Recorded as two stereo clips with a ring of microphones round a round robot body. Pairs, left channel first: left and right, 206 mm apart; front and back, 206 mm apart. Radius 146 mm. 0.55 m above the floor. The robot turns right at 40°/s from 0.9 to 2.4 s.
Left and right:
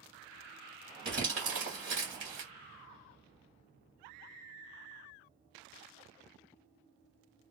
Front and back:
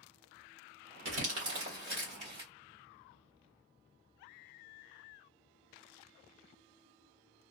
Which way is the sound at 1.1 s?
165° right.